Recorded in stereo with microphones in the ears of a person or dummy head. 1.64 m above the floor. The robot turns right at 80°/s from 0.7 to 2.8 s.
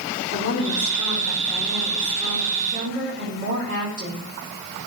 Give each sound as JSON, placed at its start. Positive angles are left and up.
{"t": 0.3, "sound": "a woman speaking", "azimuth_deg": 85, "distance_m": 3.0}